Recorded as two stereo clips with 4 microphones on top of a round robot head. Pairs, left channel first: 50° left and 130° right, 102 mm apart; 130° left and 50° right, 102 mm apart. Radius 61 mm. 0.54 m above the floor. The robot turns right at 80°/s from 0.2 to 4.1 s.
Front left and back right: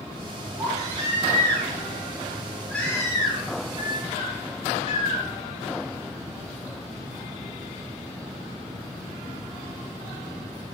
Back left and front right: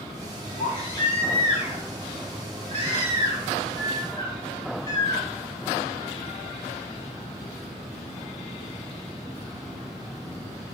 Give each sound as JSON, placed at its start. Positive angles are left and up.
{"t": 0.6, "sound": "a baby crying", "azimuth_deg": 155, "distance_m": 6.0}